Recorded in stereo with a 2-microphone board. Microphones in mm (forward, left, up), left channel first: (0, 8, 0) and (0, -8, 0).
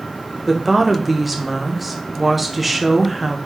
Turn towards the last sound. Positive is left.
turn(degrees=-10)  # may be behind; listen again after turning